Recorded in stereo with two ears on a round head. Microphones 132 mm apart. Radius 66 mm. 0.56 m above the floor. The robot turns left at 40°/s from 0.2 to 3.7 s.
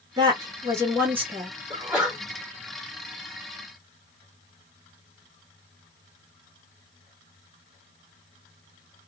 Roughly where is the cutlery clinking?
No cutlery clinking in this recording.